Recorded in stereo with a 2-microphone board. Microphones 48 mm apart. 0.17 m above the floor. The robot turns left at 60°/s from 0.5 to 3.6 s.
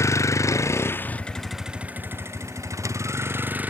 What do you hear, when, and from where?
0.0 s a vehicle: 70° left (ahead or behind); by 3.7 s 35° right (ahead or behind)